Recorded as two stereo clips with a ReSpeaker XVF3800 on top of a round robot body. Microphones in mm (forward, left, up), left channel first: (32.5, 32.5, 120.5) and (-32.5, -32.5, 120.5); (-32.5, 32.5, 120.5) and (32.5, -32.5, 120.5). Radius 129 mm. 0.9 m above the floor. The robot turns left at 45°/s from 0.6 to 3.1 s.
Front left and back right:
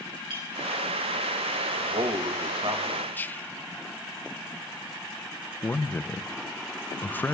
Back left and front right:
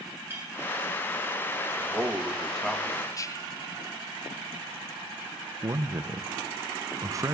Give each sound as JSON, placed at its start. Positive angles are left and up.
{"t": 0.3, "sound": "a clink", "azimuth_deg": -105, "distance_m": 3.5}
{"t": 1.8, "sound": "a man speaking", "azimuth_deg": -100, "distance_m": 1.7}
{"t": 3.1, "sound": "whispering", "azimuth_deg": 105, "distance_m": 1.0}
{"t": 5.6, "sound": "a man speaking", "azimuth_deg": -15, "distance_m": 0.8}